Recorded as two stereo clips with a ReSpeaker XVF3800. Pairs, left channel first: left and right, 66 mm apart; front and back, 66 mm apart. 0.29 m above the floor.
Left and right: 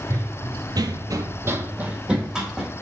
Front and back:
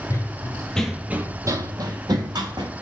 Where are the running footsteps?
45° right, 0.8 m; by 2.7 s 175° right, 1.2 m.